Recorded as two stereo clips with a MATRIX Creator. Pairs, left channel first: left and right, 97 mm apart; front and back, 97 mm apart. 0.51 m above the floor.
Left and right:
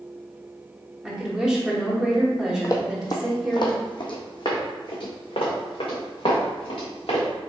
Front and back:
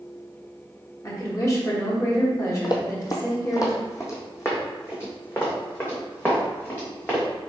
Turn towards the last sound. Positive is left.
turn(degrees=70)